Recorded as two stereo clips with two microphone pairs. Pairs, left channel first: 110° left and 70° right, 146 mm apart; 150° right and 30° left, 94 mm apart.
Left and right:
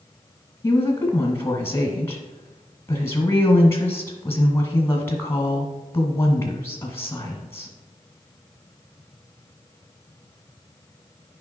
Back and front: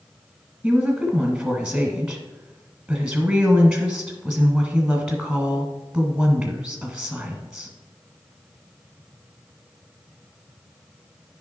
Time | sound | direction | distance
0.6 | a woman speaking | 90° left | 1.3 m